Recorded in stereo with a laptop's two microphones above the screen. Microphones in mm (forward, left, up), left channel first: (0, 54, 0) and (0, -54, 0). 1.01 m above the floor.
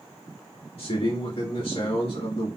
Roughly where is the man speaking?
Left.